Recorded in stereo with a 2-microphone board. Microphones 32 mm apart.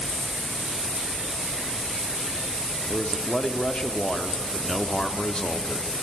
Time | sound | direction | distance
2.9 | a man speaking | 35° left (ahead or behind) | 1.2 m